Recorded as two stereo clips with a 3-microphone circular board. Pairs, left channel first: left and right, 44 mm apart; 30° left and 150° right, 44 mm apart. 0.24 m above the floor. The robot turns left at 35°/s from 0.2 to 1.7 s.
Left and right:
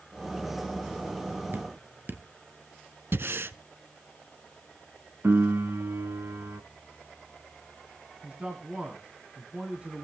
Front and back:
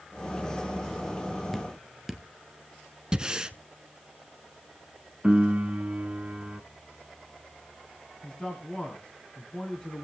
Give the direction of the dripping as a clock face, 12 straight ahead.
2 o'clock.